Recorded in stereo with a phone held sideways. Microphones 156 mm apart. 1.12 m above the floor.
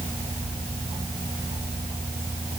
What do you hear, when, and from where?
Only background noise.